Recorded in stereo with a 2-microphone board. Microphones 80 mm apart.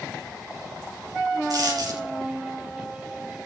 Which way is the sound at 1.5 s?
60° right (ahead or behind).